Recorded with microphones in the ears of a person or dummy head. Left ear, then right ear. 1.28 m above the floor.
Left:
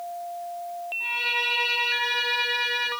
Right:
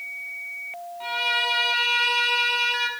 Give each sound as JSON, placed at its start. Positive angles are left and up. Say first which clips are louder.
{"t": 1.0, "sound": "a violin", "louder": "right 2 dB", "side_deg": -35, "distance_m": 1.1}